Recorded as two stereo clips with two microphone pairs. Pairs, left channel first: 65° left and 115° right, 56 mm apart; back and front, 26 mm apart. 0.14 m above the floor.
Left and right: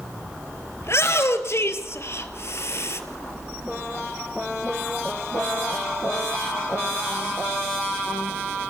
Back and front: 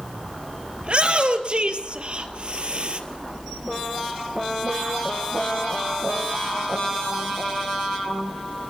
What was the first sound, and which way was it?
A shout, 40° left.